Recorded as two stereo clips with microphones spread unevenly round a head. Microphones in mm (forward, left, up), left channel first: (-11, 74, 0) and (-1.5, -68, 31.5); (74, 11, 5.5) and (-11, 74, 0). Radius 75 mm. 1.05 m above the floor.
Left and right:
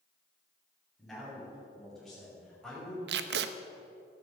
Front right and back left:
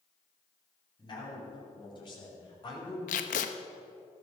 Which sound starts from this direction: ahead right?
Tape being pulled, at 3.1 s.